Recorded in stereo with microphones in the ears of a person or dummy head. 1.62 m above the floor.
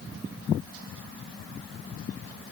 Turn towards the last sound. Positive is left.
No sound to turn to.